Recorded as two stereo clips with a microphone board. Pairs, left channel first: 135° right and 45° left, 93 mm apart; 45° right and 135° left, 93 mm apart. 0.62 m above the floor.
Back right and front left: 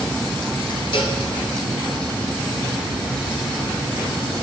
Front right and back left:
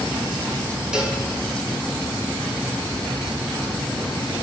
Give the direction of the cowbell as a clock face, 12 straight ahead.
5 o'clock.